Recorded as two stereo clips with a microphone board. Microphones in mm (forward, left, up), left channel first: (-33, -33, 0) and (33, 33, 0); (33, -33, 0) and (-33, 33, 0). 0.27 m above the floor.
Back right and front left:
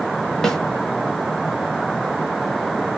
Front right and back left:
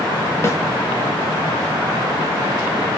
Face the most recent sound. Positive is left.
turn(degrees=-55)